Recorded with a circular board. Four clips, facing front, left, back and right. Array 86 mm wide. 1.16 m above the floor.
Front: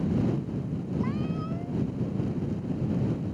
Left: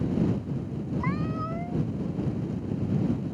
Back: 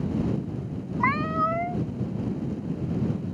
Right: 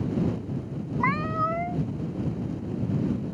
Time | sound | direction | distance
1.0 | a cat meowing | 150° right | ?